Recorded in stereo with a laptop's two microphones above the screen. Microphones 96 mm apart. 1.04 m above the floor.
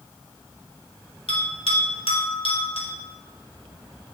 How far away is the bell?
About 1.5 m.